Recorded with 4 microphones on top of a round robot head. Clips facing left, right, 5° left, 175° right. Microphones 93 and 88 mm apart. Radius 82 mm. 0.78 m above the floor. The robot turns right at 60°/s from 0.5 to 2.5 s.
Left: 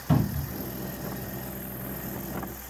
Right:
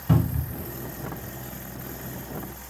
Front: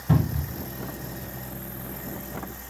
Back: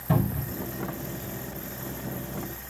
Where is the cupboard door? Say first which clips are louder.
Right 1 dB, front 1 dB; 45° right, 3 m; by 0.6 s 40° right, 3 m.